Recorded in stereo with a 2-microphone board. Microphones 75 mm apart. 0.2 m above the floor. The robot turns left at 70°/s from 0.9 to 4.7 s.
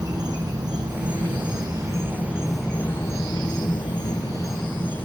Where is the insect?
65° right, 5.5 m; by 5.0 s 30° left, 5.5 m.